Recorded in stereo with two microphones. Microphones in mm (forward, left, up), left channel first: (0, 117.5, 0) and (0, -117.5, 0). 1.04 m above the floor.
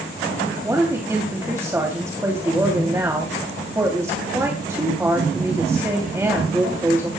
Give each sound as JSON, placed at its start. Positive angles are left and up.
{"t": 0.6, "sound": "a woman speaking", "side_deg": -10, "distance_m": 2.5}